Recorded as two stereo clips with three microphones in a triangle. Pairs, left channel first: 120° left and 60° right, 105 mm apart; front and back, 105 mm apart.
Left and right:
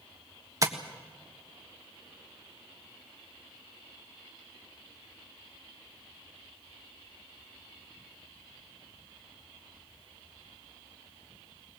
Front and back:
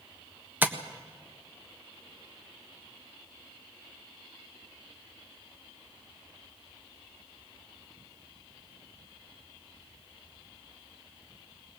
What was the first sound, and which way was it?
Tapping, 110° right.